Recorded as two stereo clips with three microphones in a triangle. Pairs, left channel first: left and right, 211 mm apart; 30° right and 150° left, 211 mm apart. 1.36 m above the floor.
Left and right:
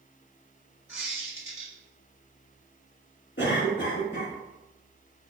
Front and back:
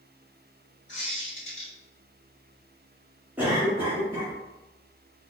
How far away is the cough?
About 0.9 m.